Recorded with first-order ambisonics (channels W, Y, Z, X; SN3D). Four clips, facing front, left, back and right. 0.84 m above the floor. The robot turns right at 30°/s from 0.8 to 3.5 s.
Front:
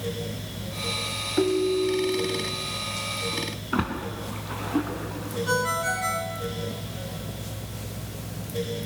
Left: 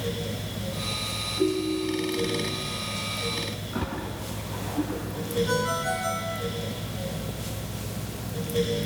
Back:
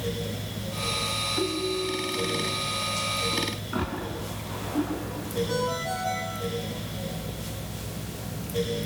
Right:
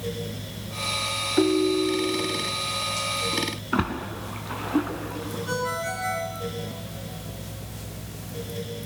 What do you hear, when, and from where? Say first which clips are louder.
1.4 s a ringtone: right 5 dB, front 5 dB; 65° right, 1.8 m; by 2.4 s 35° right, 1.8 m
3.7 s a splash: right 7 dB, front 3 dB; 65° right, 4 m
5.5 s a ringtone: right 2 dB, front 7 dB; straight ahead, 6 m